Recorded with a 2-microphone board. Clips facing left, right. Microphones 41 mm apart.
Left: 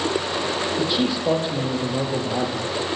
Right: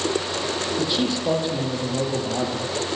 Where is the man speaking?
5° left (ahead or behind), 6.5 m.